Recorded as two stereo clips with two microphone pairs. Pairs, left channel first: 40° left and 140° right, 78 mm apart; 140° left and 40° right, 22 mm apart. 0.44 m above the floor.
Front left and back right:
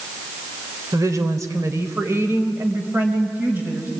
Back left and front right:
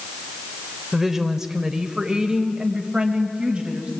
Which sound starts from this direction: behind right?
A woman speaking, at 0.9 s.